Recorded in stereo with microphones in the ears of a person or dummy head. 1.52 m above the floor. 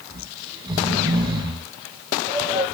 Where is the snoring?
25° right (ahead or behind), 4 m.